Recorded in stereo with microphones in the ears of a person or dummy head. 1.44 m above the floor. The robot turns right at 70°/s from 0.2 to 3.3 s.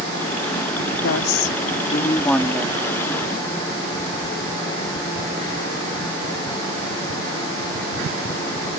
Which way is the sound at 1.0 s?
75° left.